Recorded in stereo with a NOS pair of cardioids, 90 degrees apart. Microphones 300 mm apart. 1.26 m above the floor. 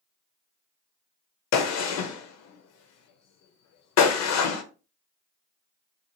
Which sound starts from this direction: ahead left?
A gunshot, at 1.5 s.